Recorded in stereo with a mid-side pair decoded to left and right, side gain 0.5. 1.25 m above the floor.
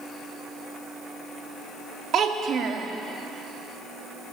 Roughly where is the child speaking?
Ahead right.